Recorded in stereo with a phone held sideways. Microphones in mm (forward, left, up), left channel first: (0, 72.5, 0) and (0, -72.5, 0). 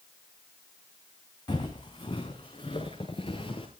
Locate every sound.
1.5 s footsteps: 30° left (ahead or behind), 3.5 m; by 3.7 s 35° left (ahead or behind), 5.5 m